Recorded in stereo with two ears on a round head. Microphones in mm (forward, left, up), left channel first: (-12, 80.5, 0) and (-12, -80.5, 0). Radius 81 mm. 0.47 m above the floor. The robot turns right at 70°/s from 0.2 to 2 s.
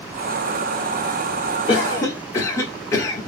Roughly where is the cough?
Left.